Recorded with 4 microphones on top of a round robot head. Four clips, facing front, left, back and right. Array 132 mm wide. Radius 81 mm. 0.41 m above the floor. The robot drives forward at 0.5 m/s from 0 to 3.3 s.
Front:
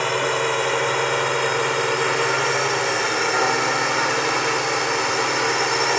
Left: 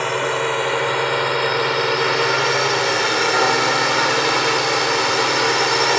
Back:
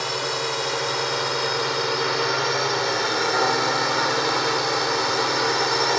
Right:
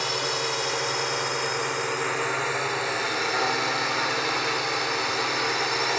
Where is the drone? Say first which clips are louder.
Left 8 dB, front 5 dB; 50° left; by 6.0 s 85° left.